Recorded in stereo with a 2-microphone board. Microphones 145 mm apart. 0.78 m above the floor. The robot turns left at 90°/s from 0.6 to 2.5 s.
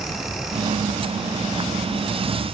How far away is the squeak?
No squeak in this recording.